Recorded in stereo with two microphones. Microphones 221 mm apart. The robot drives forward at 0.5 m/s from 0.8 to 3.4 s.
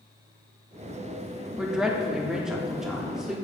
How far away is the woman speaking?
About 1.1 m.